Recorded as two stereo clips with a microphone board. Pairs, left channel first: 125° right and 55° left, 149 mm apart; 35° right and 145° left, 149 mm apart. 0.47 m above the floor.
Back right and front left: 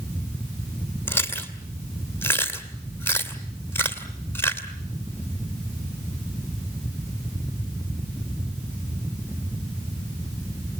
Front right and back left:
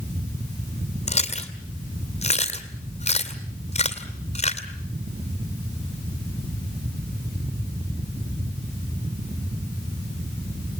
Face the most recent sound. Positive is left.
turn(degrees=-55)